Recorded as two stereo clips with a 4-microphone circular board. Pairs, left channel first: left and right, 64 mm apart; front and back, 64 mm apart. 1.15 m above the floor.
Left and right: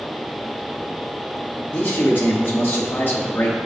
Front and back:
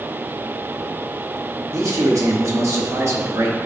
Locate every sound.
1.7 s a man speaking: 145° left, 1.4 m